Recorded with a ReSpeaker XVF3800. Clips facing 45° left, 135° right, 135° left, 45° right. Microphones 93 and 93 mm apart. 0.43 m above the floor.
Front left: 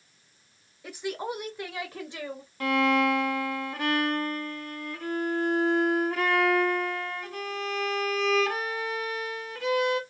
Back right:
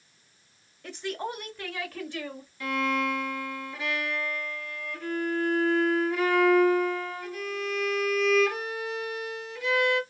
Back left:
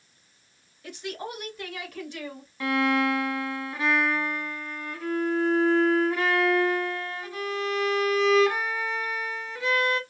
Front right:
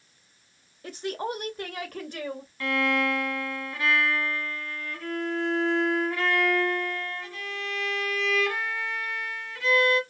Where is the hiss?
I don't hear a hiss.